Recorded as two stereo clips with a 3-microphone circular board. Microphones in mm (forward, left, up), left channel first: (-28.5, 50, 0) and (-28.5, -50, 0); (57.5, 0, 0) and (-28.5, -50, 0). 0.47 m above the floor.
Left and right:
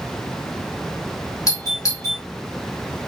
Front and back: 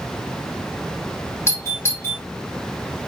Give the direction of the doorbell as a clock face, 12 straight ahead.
10 o'clock.